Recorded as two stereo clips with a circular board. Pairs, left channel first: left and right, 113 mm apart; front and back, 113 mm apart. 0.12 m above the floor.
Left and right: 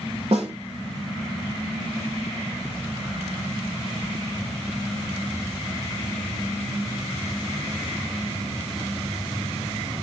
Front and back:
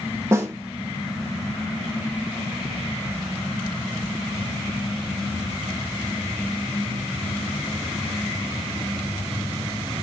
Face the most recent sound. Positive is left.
turn(degrees=-115)